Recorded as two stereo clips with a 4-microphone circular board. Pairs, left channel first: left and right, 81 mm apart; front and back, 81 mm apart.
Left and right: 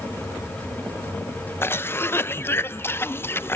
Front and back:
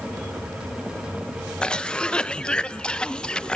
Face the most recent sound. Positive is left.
turn(degrees=70)